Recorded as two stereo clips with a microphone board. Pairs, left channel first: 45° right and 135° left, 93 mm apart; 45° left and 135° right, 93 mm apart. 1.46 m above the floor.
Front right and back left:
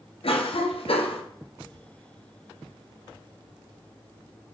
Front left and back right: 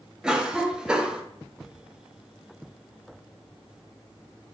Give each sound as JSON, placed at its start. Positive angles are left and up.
{"t": 0.2, "sound": "a cough", "azimuth_deg": -55, "distance_m": 0.6}